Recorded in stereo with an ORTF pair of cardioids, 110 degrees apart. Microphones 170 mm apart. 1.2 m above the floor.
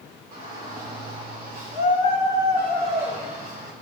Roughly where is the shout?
Ahead right.